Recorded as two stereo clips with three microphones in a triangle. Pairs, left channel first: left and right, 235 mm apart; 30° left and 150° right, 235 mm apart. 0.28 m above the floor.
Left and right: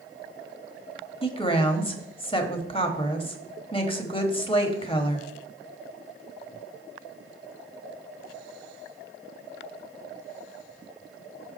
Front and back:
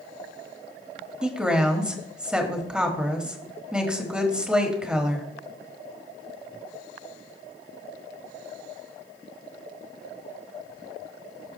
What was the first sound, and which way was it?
A woman speaking, 130° left.